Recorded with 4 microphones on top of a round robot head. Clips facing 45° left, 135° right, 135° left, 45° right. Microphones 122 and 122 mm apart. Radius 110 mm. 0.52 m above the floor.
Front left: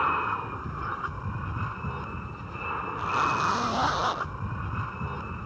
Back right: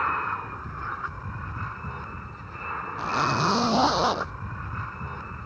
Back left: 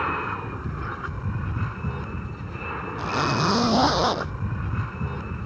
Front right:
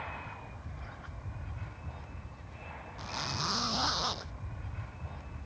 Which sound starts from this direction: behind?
A zipper, at 3.0 s.